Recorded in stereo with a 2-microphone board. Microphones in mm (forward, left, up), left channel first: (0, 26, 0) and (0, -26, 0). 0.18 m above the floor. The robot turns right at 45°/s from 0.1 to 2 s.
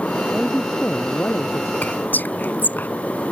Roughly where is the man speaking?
Ahead.